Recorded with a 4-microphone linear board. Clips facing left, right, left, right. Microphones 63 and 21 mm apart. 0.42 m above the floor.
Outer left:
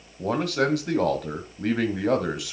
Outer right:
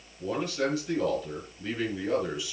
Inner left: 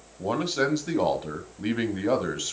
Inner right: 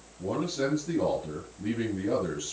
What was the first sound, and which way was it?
A man speaking, 65° left (ahead or behind).